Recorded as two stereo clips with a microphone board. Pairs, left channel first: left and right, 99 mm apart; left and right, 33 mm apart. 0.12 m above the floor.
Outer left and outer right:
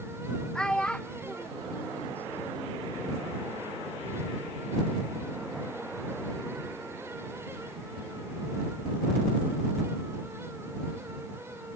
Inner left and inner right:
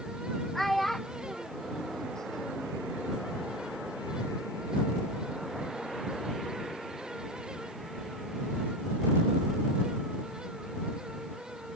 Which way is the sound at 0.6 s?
10° left (ahead or behind).